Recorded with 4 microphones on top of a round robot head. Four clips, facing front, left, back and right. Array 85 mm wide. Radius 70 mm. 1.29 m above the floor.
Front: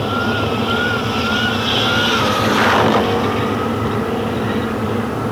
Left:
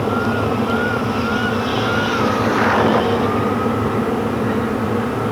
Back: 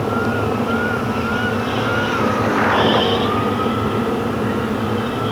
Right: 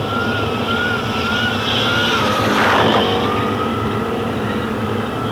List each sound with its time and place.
Only background noise.